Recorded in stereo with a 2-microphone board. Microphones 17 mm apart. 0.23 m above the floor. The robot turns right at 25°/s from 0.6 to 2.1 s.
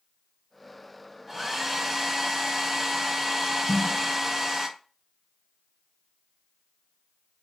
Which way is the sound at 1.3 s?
15° right (ahead or behind).